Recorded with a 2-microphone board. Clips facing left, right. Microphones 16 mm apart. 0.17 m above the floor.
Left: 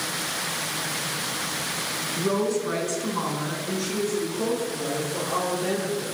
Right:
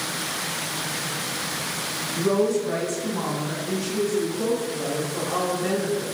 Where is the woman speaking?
Centre (ahead or behind), 1.3 m; by 6.0 s 65° left (ahead or behind), 5.5 m.